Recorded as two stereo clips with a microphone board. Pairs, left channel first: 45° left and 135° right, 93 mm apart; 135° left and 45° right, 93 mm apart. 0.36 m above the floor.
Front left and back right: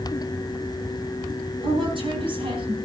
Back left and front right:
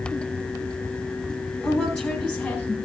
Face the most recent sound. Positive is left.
turn(degrees=-150)